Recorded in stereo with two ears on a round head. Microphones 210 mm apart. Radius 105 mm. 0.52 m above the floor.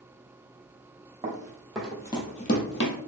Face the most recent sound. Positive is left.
turn(degrees=60)  # may be behind; listen again after turning